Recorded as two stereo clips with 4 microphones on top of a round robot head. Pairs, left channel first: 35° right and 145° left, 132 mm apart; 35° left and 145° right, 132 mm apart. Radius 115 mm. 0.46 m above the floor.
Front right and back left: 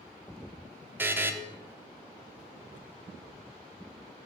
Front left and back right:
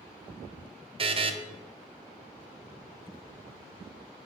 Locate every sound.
1.0 s a buzzer: 150° right, 0.7 m